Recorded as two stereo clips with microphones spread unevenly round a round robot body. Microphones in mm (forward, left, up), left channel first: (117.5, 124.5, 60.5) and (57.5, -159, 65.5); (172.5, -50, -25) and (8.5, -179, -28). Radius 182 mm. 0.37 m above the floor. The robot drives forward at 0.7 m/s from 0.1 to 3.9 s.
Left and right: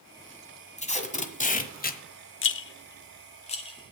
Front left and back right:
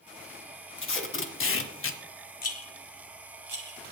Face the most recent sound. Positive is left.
turn(degrees=150)